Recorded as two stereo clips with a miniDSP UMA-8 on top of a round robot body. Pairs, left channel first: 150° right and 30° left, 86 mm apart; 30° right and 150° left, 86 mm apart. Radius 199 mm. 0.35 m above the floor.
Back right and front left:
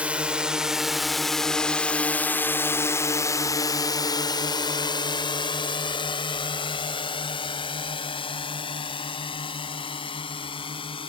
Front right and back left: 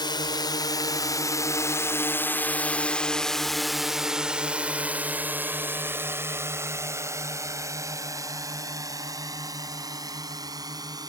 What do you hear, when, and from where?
0.0 s a drone: 45° right; by 11.1 s 165° right